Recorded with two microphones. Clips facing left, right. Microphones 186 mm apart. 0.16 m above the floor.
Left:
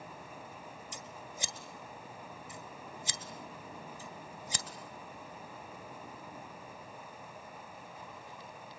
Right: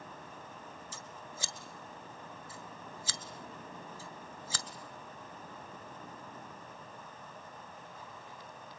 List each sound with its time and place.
0.9 s scissors: 20° left (ahead or behind), 1.8 m